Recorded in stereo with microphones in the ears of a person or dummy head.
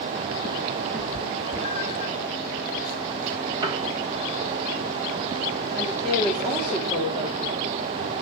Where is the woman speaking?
25° right (ahead or behind), 4 m.